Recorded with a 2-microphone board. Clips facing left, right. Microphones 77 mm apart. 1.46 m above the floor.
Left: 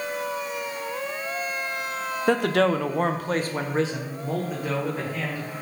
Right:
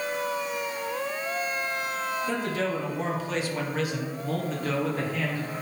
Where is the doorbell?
I don't hear a doorbell.